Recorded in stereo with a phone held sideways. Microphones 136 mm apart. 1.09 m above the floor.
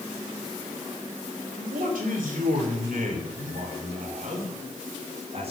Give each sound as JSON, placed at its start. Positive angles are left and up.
{"t": 1.6, "sound": "a man speaking", "side_deg": -85, "distance_m": 3.5}